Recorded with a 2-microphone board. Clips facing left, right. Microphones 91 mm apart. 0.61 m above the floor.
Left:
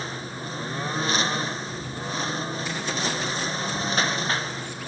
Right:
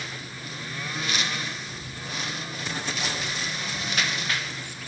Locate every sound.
0.0 s a lawn mower: 35° left (ahead or behind)